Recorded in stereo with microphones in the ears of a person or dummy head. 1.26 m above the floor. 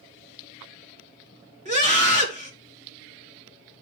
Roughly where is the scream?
Right.